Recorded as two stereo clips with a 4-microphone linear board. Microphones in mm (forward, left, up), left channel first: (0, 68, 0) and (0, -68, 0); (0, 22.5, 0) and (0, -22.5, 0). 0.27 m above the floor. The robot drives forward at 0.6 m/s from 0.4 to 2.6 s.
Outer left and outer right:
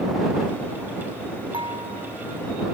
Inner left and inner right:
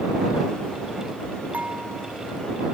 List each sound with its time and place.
1.5 s dishes clattering: 40° right (ahead or behind); by 2.1 s 35° right (ahead or behind)